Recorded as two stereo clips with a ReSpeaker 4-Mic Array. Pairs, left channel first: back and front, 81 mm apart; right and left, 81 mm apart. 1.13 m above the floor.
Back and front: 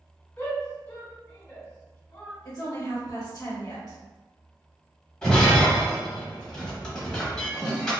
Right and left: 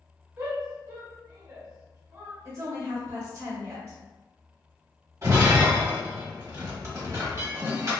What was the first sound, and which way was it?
A shout, 135° left.